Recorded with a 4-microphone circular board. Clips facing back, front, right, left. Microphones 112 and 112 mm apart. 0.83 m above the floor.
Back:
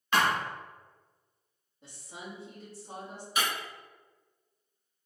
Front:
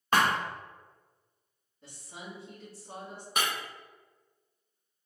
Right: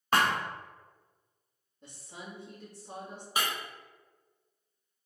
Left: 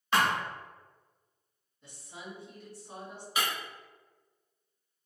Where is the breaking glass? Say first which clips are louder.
Even, even; 40° right, 1.5 m.